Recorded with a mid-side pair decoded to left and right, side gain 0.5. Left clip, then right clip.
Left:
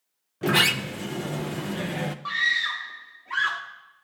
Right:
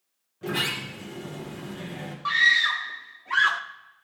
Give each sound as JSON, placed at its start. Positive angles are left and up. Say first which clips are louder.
{"t": 0.4, "sound": "a sliding door", "louder": "left 7 dB", "azimuth_deg": 65, "distance_m": 0.7}
{"t": 2.2, "sound": "a scream", "louder": "right 5 dB", "azimuth_deg": -25, "distance_m": 1.0}